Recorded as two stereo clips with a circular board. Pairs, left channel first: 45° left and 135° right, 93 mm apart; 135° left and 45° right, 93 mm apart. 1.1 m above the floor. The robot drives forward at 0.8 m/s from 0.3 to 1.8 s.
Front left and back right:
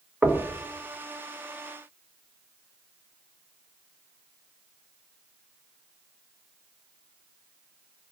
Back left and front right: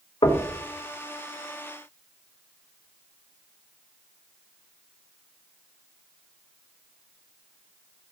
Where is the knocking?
140° left, 1.3 m; by 0.5 s 145° left, 1.4 m.